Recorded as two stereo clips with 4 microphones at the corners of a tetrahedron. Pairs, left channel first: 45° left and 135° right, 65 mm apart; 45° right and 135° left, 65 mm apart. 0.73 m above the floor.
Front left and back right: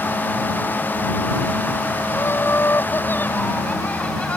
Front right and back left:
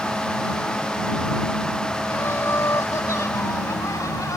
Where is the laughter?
Straight ahead; by 4.4 s 25° right.